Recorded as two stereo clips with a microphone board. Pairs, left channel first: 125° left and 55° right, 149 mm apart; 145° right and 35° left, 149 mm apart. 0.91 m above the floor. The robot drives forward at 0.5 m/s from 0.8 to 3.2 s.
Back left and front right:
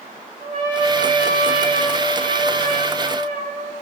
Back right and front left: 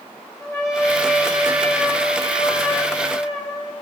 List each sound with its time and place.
0.4 s a trumpet: 75° right, 4.5 m; by 3.7 s 90° right, 4.5 m